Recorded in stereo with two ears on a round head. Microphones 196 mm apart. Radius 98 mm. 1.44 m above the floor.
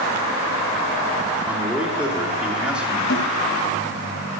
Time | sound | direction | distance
1.5 | a man speaking | 5° right (ahead or behind) | 3 m
3.1 | a snare drum | 65° left (ahead or behind) | 4 m